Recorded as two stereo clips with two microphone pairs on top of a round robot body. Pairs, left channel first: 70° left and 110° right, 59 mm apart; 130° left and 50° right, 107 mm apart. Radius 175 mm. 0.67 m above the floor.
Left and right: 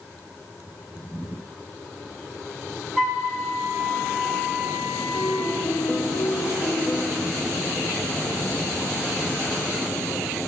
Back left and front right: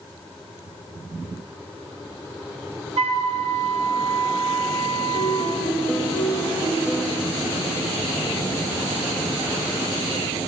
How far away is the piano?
About 1.5 m.